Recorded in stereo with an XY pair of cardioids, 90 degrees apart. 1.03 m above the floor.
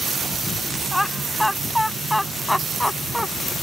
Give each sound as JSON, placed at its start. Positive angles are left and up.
{"t": 0.9, "sound": "laughter", "azimuth_deg": 5}